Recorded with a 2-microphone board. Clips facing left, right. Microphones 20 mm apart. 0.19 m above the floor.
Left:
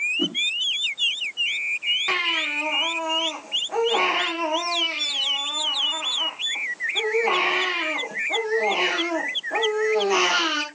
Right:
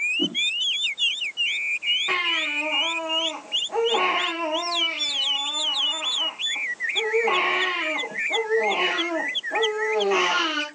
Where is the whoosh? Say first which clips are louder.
Even; 55° left (ahead or behind), 1.6 m.